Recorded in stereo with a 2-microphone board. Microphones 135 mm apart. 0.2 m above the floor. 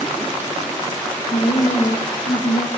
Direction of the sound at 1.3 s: 65° left (ahead or behind).